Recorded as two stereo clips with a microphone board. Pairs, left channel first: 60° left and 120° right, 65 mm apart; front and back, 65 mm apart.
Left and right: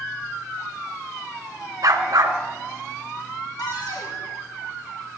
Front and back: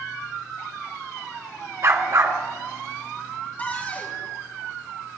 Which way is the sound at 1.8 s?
140° right.